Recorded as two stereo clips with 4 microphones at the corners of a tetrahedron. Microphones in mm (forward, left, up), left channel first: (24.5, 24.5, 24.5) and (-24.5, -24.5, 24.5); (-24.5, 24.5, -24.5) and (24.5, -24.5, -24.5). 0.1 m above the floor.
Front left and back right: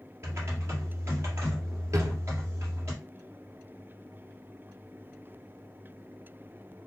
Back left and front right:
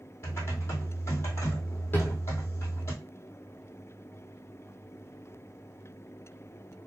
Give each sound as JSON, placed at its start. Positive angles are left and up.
{"t": 0.2, "sound": "typing on a keyboard", "azimuth_deg": 180, "distance_m": 2.0}
{"t": 1.9, "sound": "a drawer", "azimuth_deg": -175, "distance_m": 1.3}